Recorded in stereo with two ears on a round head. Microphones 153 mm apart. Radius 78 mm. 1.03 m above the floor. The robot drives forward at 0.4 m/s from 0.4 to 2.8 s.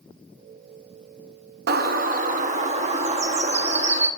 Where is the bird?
65° right (ahead or behind), 0.7 m; by 4.1 s 40° right (ahead or behind), 1.0 m.